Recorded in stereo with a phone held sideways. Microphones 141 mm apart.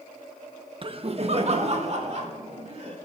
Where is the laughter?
40° right (ahead or behind), 0.6 m; by 3.0 s 50° right (ahead or behind), 3 m.